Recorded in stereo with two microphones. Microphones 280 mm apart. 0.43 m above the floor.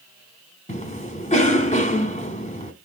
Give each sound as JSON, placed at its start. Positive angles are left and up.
{"t": 0.7, "sound": "a cough", "side_deg": 25, "distance_m": 1.2}